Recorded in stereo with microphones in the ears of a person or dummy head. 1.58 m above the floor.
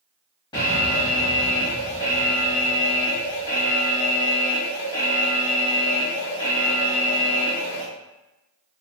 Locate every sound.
0.5 s an alarm: 15° left (ahead or behind), 1.1 m